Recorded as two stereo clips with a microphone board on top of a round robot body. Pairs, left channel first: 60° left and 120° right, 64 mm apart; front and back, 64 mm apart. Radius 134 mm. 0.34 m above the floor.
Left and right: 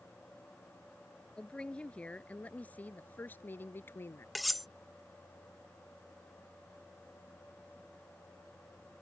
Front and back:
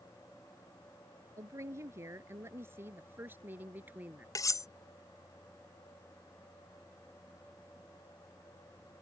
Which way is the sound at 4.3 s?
30° right.